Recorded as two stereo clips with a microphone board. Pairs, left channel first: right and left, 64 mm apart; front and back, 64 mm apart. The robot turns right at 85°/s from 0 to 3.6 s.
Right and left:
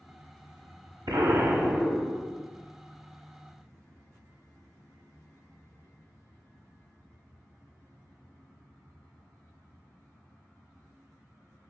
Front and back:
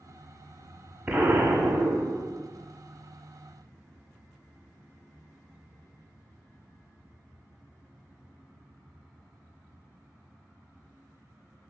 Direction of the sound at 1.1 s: 110° left.